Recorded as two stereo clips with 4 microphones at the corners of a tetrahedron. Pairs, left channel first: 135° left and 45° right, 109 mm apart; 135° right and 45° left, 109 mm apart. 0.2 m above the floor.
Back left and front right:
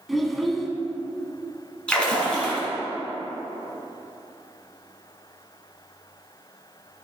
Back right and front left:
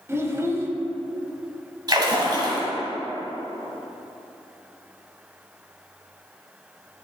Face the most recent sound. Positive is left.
turn(degrees=60)